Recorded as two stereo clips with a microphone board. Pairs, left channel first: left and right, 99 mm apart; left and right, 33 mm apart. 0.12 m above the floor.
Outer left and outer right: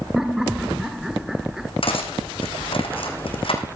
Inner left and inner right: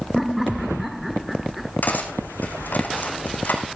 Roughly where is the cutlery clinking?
Left.